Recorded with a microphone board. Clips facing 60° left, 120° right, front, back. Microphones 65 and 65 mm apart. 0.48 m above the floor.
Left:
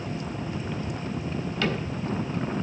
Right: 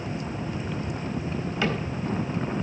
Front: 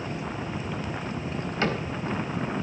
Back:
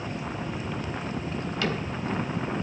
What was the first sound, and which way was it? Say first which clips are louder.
A cupboard door: right 1 dB, front 3 dB; 50° right.